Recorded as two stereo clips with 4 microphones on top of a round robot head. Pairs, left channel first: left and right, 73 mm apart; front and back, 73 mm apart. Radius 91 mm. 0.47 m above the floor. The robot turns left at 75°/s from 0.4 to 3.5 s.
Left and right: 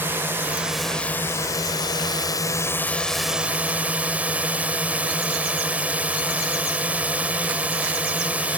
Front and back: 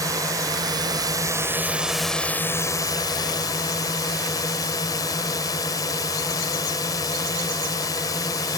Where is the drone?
150° right; by 8.6 s 20° right.